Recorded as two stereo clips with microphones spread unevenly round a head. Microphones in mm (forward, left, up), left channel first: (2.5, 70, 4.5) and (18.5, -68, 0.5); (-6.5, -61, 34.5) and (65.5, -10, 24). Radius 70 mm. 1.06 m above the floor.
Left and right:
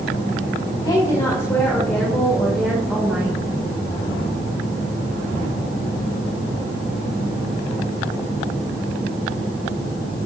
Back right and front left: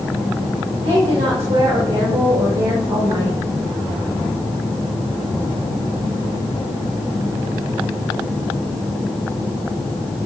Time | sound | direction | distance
0.8 | a woman speaking | 35° left | 3.5 m